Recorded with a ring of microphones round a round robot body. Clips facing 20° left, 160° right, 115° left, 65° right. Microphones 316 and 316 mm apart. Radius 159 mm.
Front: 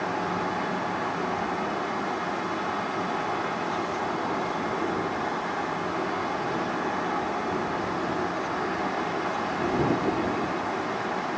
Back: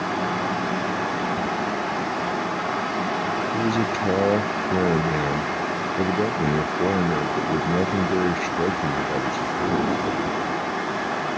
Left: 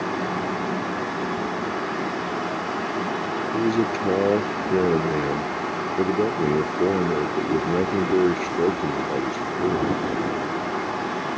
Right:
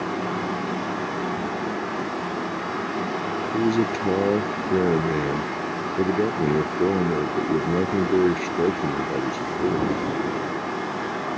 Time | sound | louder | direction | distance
3.5 | a man speaking | back 8 dB, even | 150° right | ?